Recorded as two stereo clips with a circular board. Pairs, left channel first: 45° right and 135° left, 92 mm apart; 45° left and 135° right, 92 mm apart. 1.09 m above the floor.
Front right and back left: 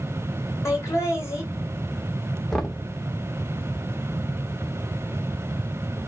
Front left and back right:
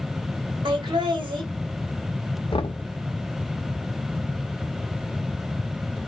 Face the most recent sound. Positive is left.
turn(degrees=40)